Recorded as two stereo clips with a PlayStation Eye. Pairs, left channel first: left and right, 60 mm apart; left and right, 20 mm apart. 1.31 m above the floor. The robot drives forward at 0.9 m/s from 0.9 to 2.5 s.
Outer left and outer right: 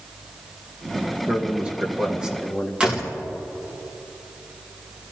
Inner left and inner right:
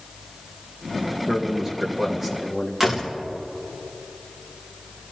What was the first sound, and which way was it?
A man speaking, 20° right (ahead or behind).